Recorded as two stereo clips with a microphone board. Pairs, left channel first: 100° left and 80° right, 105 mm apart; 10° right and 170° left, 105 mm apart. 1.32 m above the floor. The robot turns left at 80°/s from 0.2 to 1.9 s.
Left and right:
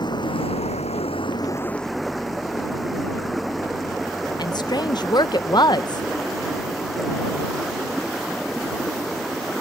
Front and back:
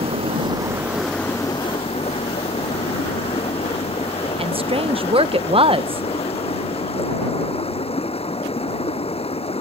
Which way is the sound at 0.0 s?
145° left.